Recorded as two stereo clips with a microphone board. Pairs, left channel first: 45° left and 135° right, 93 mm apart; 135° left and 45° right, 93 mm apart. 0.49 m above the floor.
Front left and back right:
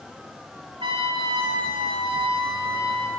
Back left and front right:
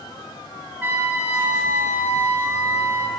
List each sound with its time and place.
0.8 s a trumpet: 110° right, 3 m